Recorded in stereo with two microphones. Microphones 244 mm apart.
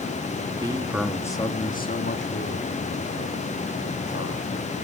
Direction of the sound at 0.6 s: 20° right (ahead or behind).